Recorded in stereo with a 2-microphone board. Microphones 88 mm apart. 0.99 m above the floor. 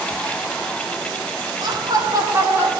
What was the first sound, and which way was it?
Laughter, 60° right (ahead or behind).